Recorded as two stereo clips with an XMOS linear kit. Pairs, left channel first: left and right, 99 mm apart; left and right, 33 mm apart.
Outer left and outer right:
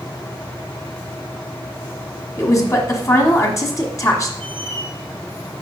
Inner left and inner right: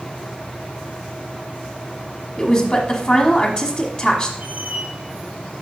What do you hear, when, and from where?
2.4 s a woman speaking: 35° left (ahead or behind), 1.3 m
4.4 s a squeak: 55° right (ahead or behind), 2 m